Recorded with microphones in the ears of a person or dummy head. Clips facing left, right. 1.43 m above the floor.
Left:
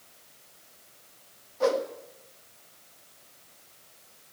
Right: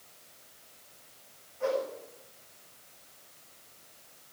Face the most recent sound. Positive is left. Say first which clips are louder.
# left 5 dB
turn(degrees=70)  # may be behind; listen again after turning